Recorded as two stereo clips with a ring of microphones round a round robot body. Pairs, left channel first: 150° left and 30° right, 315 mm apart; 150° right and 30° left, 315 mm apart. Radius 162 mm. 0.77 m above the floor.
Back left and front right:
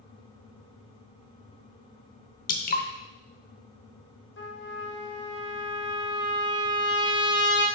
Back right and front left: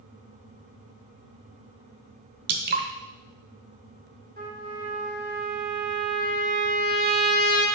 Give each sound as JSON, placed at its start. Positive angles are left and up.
{"t": 2.5, "sound": "dripping", "azimuth_deg": 90, "distance_m": 0.7}
{"t": 4.4, "sound": "a trumpet", "azimuth_deg": 95, "distance_m": 1.8}